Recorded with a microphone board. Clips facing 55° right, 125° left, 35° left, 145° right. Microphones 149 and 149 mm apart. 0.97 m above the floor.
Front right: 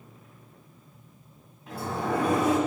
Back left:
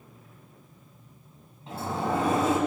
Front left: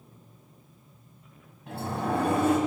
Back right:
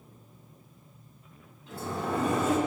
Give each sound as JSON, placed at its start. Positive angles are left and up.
{"t": 1.7, "sound": "a sliding door", "azimuth_deg": 60, "distance_m": 4.0}